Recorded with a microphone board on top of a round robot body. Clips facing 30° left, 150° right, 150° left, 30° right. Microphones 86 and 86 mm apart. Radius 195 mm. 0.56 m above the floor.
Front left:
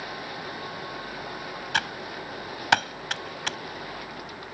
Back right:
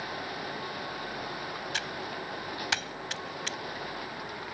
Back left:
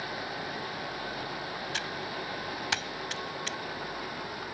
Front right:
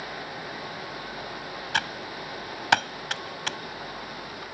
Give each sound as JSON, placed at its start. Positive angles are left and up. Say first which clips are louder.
{"t": 1.7, "sound": "typing on a keyboard", "louder": "front left 5 dB, front right 4 dB", "azimuth_deg": 0}